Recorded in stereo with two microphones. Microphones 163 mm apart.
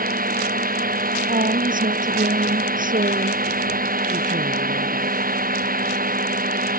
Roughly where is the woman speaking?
Right.